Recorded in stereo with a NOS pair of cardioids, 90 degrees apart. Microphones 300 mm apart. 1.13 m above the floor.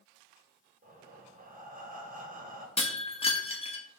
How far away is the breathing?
About 0.8 m.